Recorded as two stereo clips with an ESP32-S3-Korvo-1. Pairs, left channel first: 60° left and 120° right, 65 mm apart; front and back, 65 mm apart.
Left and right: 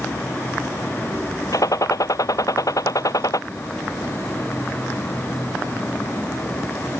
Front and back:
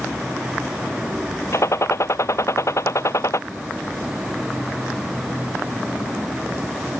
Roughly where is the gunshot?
Ahead left.